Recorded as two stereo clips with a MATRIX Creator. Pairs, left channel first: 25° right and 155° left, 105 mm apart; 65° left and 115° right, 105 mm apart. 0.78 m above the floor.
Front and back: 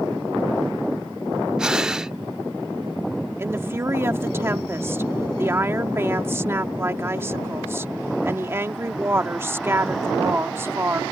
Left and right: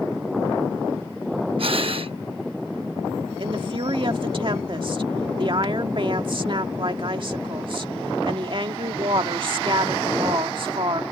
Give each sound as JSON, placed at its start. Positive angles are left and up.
{"t": 1.6, "sound": "breathing", "azimuth_deg": -120}
{"t": 3.4, "sound": "a woman speaking", "azimuth_deg": -140}